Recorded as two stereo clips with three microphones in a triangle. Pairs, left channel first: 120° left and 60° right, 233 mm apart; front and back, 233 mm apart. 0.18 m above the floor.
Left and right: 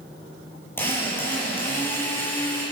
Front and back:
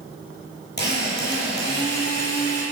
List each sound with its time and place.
0.8 s a drill: 40° left, 5.5 m